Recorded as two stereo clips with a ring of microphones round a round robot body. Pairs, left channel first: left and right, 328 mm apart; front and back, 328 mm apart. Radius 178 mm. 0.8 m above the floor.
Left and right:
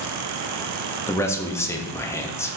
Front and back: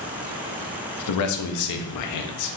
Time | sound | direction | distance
1.1 | a man speaking | 10° left | 0.7 m